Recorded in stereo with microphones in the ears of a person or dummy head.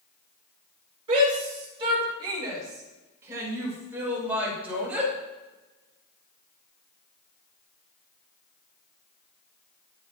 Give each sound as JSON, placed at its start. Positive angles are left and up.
{"t": 1.1, "sound": "a shout", "side_deg": -35, "distance_m": 5.5}